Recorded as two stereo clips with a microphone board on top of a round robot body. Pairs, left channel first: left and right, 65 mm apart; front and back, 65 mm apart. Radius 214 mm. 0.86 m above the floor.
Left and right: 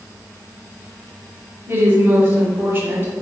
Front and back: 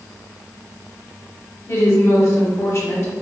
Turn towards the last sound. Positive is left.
turn(degrees=-35)